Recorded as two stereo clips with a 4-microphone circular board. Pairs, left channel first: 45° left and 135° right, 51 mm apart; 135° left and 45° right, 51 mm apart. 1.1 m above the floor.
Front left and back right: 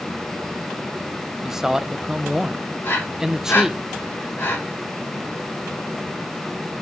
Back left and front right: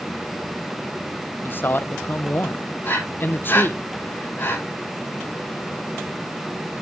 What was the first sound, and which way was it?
A man speaking, 150° left.